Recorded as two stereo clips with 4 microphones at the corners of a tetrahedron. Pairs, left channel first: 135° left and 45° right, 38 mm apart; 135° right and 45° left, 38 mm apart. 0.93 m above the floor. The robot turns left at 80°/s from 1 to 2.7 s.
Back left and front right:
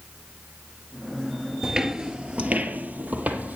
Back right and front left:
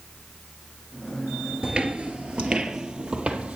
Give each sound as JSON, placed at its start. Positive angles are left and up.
{"t": 1.6, "sound": "footsteps", "azimuth_deg": 10, "distance_m": 1.0}